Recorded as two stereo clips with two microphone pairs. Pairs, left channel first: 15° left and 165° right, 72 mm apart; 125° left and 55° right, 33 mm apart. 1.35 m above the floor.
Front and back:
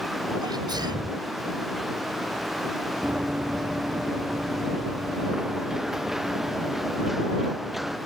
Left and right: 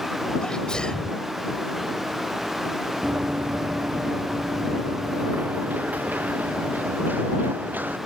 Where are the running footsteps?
90° right; by 8.0 s 75° right.